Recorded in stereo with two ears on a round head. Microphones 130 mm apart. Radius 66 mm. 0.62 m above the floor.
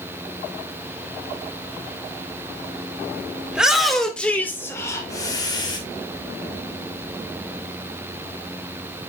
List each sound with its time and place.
3.5 s a shout: 10° right (ahead or behind), 1.8 m; by 5.8 s 35° left (ahead or behind), 2.5 m